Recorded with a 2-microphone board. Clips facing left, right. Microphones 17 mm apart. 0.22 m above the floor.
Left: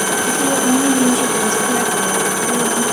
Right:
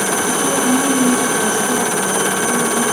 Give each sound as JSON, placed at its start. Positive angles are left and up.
{"t": 0.3, "sound": "a woman speaking", "side_deg": 55, "distance_m": 5.0}